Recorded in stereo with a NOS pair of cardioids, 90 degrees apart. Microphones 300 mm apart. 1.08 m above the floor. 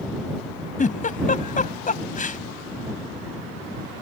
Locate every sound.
0.8 s a giggle: 25° left